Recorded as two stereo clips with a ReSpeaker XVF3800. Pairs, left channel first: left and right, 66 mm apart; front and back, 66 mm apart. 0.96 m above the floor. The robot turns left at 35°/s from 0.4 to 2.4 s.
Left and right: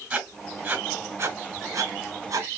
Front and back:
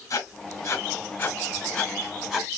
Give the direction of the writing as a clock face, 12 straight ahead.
1 o'clock.